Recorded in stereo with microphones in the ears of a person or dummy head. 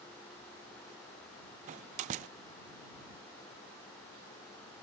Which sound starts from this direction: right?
A door slam, at 1.7 s.